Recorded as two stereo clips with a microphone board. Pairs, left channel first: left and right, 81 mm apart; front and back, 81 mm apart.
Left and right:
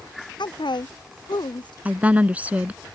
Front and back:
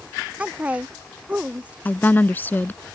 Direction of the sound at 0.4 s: 105° left.